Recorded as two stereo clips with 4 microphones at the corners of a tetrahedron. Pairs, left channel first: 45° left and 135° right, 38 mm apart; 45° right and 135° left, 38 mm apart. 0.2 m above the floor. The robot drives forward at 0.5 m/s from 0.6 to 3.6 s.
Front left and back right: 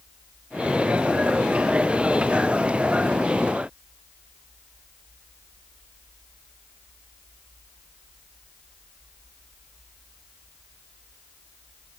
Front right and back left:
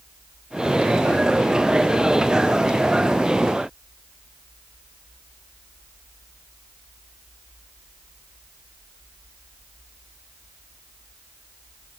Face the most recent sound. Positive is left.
No sound to turn to.